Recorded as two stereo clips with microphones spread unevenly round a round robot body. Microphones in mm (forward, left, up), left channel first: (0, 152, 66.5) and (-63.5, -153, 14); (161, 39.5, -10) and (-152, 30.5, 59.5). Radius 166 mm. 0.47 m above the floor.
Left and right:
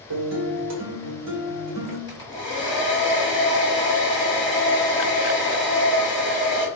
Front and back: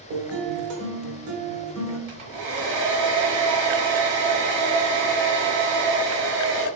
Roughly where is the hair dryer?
Behind left.